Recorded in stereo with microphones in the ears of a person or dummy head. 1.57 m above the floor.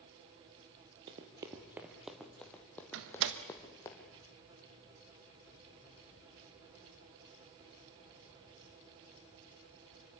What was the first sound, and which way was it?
Running footsteps, 25° right (ahead or behind).